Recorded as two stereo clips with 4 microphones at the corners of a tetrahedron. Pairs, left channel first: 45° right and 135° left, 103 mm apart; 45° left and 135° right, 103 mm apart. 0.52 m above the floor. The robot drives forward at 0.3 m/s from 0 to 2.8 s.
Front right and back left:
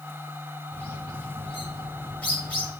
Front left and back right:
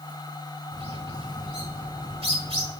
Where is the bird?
120° right, 6 m; by 2.7 s 125° right, 6 m.